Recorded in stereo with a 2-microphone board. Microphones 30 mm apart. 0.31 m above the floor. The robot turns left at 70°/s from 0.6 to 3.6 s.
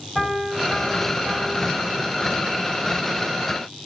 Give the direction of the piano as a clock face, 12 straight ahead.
12 o'clock.